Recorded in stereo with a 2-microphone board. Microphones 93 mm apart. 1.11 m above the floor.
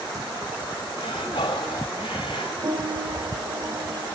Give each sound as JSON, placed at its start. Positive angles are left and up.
{"t": 1.0, "sound": "breathing", "side_deg": 70, "distance_m": 2.0}
{"t": 2.6, "sound": "a piano", "side_deg": -45, "distance_m": 3.0}